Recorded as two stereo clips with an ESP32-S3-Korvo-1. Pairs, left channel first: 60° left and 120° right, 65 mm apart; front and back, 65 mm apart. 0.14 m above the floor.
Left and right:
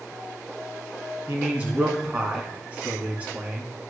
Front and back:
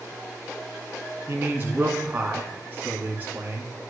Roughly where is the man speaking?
Behind.